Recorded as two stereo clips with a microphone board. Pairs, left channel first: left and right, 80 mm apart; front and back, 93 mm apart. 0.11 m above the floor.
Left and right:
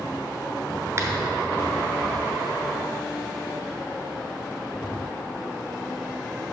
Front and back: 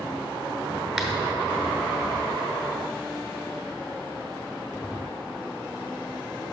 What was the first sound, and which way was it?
A finger snap, 90° right.